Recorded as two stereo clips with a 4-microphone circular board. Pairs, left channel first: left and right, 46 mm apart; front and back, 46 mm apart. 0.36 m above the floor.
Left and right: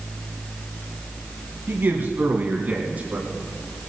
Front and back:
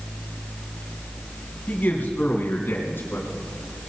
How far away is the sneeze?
No sneeze in this recording.